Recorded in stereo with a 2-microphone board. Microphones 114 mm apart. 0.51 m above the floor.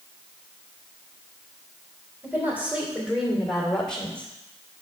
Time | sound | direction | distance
2.2 | a woman speaking | 20° right (ahead or behind) | 2 m